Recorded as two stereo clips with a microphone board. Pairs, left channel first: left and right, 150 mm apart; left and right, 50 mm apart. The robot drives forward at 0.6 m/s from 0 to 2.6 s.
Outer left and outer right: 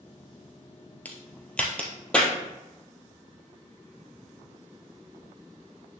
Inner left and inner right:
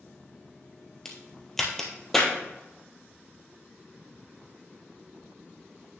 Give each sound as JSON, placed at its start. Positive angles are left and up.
{"t": 1.1, "sound": "a crack", "side_deg": 10, "distance_m": 1.5}